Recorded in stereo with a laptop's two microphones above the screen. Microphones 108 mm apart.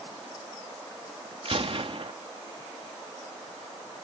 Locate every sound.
1.4 s a gunshot: 55° right (ahead or behind)